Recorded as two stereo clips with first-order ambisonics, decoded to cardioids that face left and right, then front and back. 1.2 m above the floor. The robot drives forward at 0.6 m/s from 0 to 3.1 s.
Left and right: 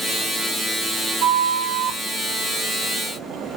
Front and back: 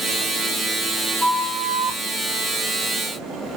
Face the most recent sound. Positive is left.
turn(degrees=-140)